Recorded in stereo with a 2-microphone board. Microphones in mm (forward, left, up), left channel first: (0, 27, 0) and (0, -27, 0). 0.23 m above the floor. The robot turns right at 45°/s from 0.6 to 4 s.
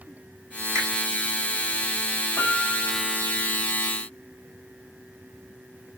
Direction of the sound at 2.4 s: 125° left.